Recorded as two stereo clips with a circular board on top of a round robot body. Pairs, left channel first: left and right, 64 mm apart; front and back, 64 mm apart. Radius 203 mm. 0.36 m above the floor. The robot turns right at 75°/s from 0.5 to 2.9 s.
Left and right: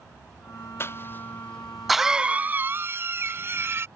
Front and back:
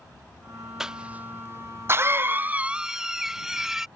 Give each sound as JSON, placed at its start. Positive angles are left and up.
{"t": 0.8, "sound": "a cough", "azimuth_deg": 100}